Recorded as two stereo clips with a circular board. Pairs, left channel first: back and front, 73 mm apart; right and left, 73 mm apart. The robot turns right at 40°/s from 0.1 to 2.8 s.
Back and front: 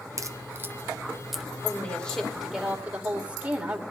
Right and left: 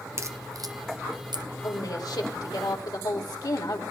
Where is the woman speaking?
120° right, 2.5 m; by 3.8 s 70° right, 2.5 m.